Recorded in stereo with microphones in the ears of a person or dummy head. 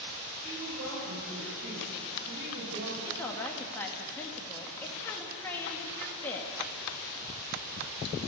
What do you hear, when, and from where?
0.4 s a woman speaking: 65° right (ahead or behind), 6 m
3.0 s a woman speaking: 15° left (ahead or behind), 2 m